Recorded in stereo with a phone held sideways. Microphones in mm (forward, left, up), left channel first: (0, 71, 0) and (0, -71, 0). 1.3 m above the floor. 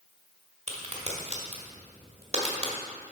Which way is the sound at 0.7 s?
45° right (ahead or behind).